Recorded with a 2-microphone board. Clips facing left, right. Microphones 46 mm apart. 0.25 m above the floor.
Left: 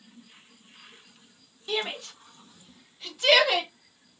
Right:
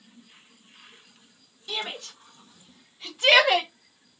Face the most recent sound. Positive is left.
turn(degrees=-25)  # may be behind; listen again after turning